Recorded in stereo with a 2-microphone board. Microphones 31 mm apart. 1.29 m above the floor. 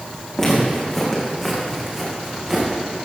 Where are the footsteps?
15° left (ahead or behind), 5.5 m; by 2.7 s 15° right (ahead or behind), 5 m.